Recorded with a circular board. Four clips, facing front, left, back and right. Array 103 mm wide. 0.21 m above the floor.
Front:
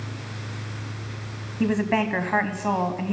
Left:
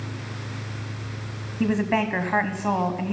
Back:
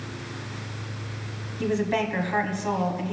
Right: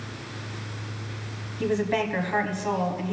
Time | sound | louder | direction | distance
1.6 | a woman speaking | left 2 dB, front 2 dB | 45° left | 1.2 m